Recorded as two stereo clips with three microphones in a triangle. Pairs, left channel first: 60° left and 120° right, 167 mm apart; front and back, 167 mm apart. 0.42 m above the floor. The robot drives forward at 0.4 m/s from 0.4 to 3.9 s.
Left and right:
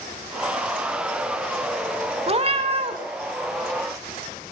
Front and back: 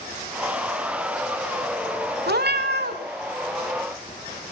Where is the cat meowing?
170° right, 0.7 m; by 3.0 s 175° right, 1.0 m.